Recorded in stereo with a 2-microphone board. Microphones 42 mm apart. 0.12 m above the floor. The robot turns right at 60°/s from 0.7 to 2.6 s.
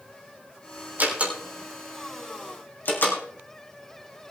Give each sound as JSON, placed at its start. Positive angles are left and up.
{"t": 1.0, "sound": "a door slam", "side_deg": -45, "distance_m": 4.0}